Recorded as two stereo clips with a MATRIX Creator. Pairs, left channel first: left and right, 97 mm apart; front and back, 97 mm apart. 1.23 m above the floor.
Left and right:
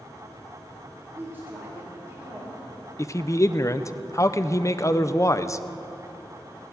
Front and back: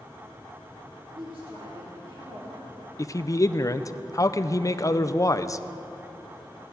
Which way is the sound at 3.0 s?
45° left.